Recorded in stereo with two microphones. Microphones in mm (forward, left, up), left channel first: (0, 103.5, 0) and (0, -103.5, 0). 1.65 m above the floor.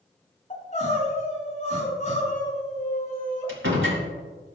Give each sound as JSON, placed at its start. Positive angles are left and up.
{"t": 0.5, "sound": "crying", "side_deg": 35, "distance_m": 4.0}
{"t": 3.5, "sound": "a door slam", "side_deg": -75, "distance_m": 3.5}